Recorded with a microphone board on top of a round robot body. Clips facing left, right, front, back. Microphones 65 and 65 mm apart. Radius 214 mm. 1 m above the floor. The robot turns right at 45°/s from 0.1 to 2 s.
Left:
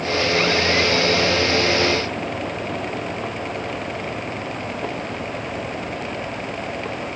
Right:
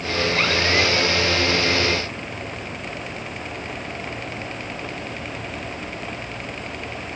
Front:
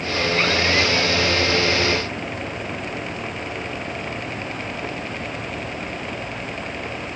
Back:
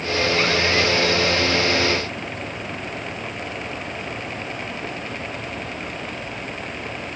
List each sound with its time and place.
Only background noise.